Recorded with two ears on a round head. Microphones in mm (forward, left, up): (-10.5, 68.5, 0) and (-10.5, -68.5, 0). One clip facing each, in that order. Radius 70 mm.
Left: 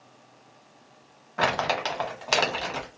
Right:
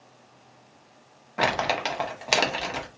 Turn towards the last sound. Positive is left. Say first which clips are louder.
# even
turn(degrees=-15)  # may be behind; listen again after turning